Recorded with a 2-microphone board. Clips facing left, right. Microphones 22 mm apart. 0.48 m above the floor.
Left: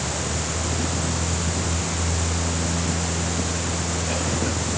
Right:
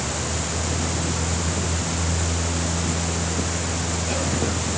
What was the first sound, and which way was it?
Only background noise.